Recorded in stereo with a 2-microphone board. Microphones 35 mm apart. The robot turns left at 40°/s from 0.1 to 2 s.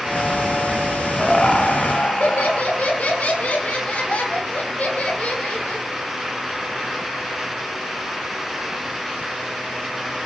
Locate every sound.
1.2 s laughter: 160° left, 1.3 m; by 5.9 s 130° left, 1.3 m